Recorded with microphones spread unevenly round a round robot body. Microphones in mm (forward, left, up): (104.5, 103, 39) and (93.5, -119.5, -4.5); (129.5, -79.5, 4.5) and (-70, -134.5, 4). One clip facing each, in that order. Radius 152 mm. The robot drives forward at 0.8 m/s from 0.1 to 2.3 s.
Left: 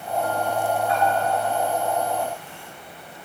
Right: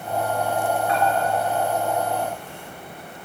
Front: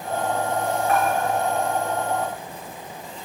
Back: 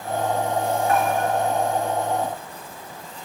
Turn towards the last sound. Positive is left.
turn(degrees=-85)